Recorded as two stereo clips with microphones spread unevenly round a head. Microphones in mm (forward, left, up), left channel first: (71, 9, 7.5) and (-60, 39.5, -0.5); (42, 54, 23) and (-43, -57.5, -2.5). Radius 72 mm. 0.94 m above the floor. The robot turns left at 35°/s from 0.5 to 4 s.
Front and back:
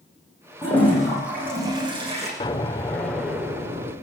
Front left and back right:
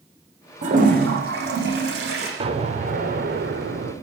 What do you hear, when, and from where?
0.6 s a toilet flushing: 85° right, 8.5 m; by 2.3 s 145° right, 8.5 m
2.4 s an explosion: 75° right, 3 m; by 3.9 s 130° right, 3 m